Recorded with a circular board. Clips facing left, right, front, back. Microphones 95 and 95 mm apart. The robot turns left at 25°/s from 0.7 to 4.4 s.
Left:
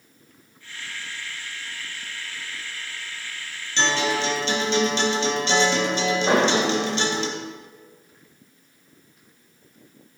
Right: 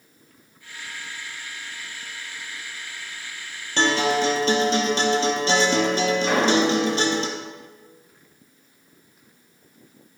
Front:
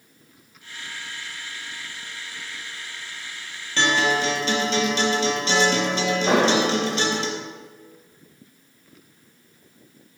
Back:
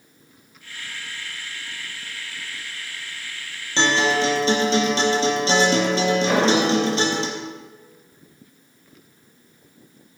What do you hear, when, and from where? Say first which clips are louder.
3.8 s a guitar: right 3 dB, back 2 dB; 115° right, 2.5 m; by 7.3 s 130° right, 2.5 m
6.3 s an explosion: left 1 dB, front 3 dB; 25° left, 3.5 m